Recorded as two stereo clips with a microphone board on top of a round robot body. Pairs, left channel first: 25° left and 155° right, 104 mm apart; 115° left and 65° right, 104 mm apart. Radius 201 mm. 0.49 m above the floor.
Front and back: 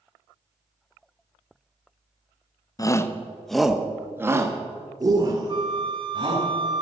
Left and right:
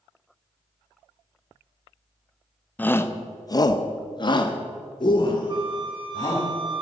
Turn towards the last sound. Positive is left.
turn(degrees=-115)